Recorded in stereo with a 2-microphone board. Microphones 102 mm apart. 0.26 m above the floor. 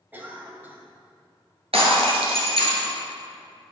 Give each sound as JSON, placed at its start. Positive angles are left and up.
{"t": 0.1, "sound": "a cough", "side_deg": -20, "distance_m": 0.9}
{"t": 1.7, "sound": "breaking glass", "side_deg": -80, "distance_m": 1.5}